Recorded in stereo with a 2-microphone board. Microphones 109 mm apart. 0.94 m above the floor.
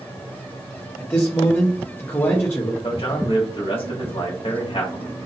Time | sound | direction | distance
1.0 | a man speaking | 20° left (ahead or behind) | 0.8 m
2.8 | a man speaking | 55° left (ahead or behind) | 1.3 m